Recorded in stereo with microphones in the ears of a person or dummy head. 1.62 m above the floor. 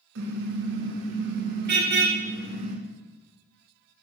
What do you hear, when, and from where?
0.1 s a car horn: 70° right (ahead or behind), 7 m; by 2.8 s 45° right (ahead or behind), 4.5 m